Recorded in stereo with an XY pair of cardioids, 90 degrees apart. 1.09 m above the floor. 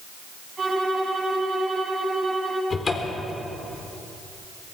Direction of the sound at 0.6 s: 40° right.